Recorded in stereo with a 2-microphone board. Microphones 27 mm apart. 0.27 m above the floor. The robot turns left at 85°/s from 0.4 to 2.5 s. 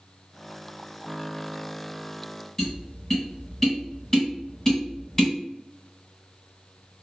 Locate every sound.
2.6 s tapping: 15° left (ahead or behind), 1.8 m